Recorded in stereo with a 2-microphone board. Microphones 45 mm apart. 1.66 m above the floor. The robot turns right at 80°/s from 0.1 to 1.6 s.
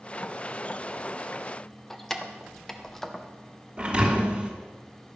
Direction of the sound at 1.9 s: 5° left (ahead or behind).